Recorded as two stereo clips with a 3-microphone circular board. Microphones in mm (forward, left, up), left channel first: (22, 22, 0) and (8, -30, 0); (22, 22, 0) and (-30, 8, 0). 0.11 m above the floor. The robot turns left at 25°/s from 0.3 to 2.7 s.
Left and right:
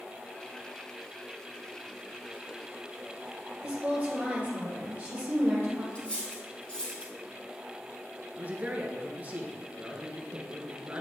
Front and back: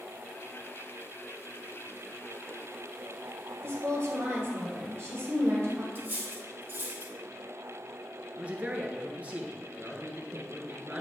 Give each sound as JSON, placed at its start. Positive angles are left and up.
{"t": 3.6, "sound": "a woman speaking", "azimuth_deg": -160, "distance_m": 2.5}
{"t": 6.0, "sound": "cutlery clinking", "azimuth_deg": 145, "distance_m": 3.0}
{"t": 8.4, "sound": "a man speaking", "azimuth_deg": -130, "distance_m": 1.4}